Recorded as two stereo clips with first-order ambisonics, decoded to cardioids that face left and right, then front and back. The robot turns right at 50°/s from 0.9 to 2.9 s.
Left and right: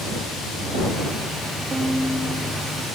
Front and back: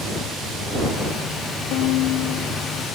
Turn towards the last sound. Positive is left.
turn(degrees=45)